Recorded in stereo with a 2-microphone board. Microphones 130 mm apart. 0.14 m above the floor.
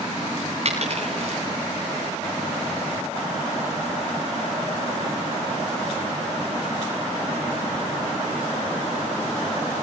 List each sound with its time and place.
0.7 s a dropped coin: 55° right (ahead or behind), 7.5 m